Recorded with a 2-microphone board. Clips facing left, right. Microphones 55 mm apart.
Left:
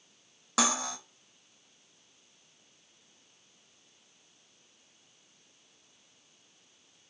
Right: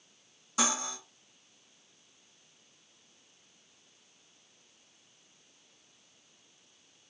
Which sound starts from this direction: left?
Cutlery clinking, at 0.6 s.